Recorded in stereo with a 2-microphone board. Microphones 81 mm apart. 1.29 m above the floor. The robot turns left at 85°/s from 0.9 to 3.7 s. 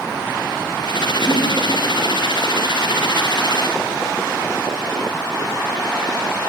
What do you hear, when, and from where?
1.2 s breathing: 25° left (ahead or behind), 6 m; by 1.5 s 5° left (ahead or behind), 6 m